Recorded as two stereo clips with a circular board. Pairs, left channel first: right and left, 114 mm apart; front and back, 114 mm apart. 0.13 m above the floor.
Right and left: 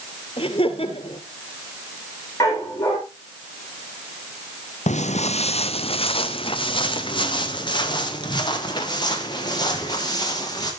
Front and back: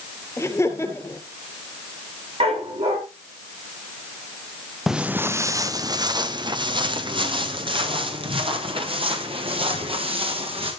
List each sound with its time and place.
0.4 s laughter: 65° right, 2.5 m
2.4 s a dog barking: 155° right, 9.5 m
4.9 s footsteps: 90° right, 0.8 m; by 10.7 s 145° right, 6 m